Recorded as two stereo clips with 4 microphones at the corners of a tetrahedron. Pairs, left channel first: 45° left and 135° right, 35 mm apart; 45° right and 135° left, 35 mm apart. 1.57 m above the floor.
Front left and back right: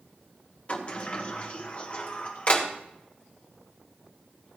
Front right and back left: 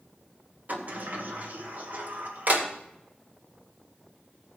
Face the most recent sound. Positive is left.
turn(degrees=95)